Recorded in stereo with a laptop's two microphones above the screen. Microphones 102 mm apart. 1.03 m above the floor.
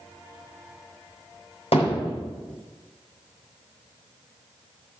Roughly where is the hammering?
Left.